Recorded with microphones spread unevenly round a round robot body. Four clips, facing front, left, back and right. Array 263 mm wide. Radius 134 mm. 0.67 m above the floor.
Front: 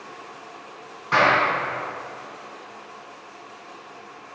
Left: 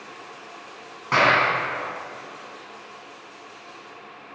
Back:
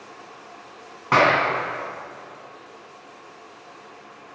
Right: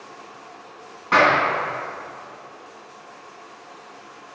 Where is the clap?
175° left, 4.5 m.